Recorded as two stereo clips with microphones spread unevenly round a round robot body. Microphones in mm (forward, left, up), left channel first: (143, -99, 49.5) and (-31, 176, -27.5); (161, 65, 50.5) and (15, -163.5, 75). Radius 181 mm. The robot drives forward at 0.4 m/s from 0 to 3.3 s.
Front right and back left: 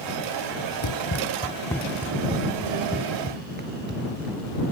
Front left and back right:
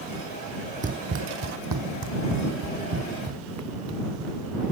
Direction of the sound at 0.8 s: 65° right.